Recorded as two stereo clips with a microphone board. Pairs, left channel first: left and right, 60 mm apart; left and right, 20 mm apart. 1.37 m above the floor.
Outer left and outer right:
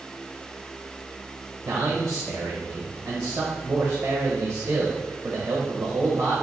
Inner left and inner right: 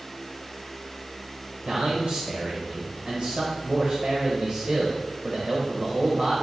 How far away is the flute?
No flute in this recording.